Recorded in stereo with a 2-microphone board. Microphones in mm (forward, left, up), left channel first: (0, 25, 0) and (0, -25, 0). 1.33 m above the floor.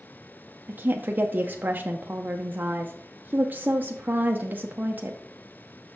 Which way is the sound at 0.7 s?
40° right (ahead or behind).